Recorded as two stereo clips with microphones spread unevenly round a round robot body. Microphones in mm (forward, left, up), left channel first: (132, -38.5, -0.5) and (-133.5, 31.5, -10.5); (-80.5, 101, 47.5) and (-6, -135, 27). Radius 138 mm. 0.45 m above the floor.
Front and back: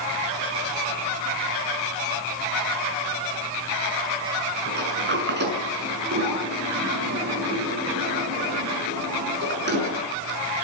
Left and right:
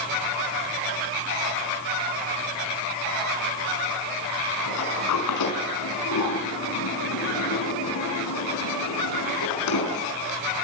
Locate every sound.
4.7 s a sliding door: 110° left, 6 m